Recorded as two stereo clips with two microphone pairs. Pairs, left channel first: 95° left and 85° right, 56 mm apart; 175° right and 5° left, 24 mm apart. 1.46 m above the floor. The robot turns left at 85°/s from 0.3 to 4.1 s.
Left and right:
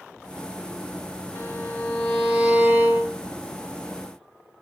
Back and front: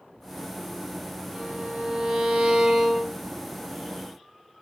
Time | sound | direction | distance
1.4 | a violin | 70° left | 1.8 m